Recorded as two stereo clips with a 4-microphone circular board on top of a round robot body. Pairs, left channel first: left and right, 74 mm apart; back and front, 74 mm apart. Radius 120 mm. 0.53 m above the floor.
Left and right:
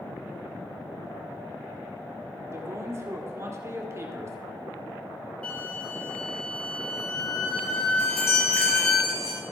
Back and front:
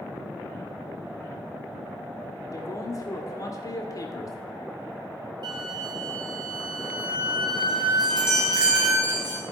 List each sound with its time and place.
2.5 s a man speaking: 140° right, 1.9 m
5.4 s a flute: 15° left, 1.7 m
8.0 s a chime: 40° left, 4 m